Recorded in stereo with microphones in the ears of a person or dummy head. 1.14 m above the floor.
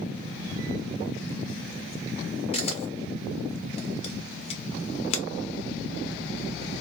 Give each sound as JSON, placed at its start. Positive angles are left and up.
{"t": 2.5, "sound": "a camera shutter", "side_deg": 35, "distance_m": 0.6}